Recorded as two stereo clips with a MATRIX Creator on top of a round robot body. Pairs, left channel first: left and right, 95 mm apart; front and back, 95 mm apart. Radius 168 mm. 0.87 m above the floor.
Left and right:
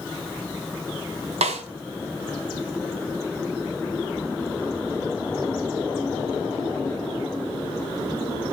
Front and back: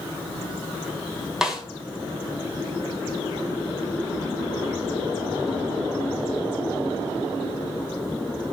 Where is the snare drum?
95° right, 1.4 m.